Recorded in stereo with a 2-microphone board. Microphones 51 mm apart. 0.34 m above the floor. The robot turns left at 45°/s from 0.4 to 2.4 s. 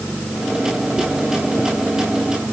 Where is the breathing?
No breathing in this recording.